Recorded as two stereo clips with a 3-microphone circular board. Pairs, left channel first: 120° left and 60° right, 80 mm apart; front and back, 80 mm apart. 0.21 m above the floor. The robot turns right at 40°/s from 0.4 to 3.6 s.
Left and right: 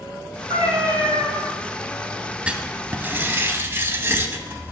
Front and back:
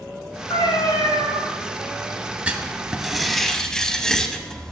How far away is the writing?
About 0.6 m.